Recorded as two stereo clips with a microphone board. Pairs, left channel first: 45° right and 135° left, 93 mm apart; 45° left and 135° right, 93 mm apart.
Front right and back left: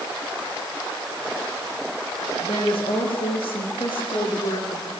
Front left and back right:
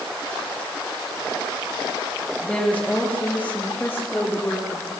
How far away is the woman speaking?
About 7.5 m.